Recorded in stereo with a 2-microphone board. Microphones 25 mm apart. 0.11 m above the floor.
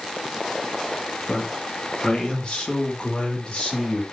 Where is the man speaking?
35° left (ahead or behind), 2 m.